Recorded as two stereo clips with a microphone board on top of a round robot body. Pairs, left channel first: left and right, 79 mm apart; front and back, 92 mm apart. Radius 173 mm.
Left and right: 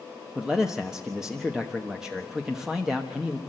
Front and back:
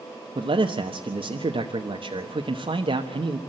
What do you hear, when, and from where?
0.3 s a man speaking: 175° right, 1.4 m